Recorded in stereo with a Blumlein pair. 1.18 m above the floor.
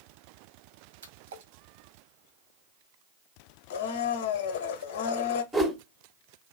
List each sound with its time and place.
1.0 s a splash: 65° right, 1.4 m
3.7 s a blender: 55° left, 0.6 m
5.5 s a whoosh: 10° right, 0.9 m